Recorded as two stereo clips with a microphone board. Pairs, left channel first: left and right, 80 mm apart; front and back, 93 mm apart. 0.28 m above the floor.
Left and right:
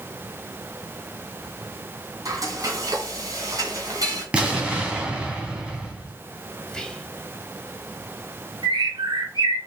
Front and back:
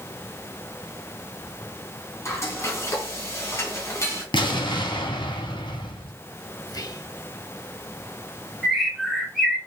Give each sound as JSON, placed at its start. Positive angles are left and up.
{"t": 2.2, "sound": "frying", "azimuth_deg": -55, "distance_m": 3.0}
{"t": 4.3, "sound": "an explosion", "azimuth_deg": -15, "distance_m": 2.5}
{"t": 6.7, "sound": "whispering", "azimuth_deg": 15, "distance_m": 1.6}
{"t": 8.6, "sound": "a bird", "azimuth_deg": -90, "distance_m": 3.0}